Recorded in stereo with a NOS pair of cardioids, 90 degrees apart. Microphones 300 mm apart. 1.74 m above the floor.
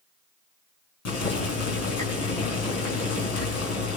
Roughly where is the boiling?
Ahead left.